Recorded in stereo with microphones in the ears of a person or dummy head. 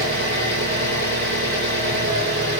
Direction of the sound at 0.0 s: 50° right (ahead or behind).